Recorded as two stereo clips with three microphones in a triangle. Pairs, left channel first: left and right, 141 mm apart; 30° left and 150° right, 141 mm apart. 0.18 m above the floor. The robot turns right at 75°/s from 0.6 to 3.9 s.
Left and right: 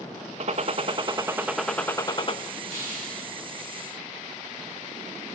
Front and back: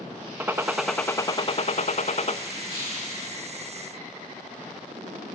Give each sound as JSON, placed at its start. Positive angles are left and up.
{"t": 0.4, "sound": "a gunshot", "azimuth_deg": -75, "distance_m": 0.7}
{"t": 2.7, "sound": "a hiss", "azimuth_deg": -25, "distance_m": 6.5}